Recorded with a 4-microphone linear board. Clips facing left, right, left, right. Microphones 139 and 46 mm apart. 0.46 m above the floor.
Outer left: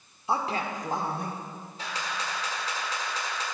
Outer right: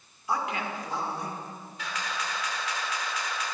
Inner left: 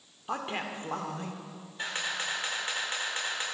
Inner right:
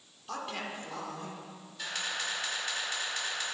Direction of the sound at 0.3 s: 25° left (ahead or behind).